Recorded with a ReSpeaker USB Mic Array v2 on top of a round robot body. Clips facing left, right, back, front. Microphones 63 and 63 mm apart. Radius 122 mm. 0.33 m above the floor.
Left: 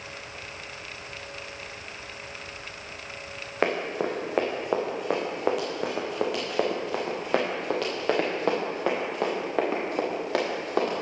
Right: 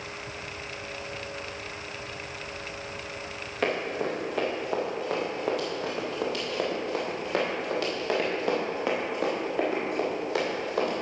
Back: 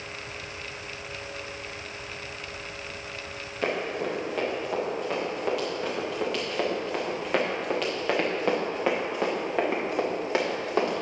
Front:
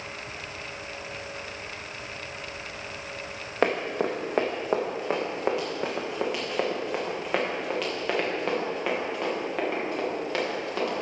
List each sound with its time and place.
3.6 s running footsteps: 35° left, 2 m; by 11.0 s 110° left, 4 m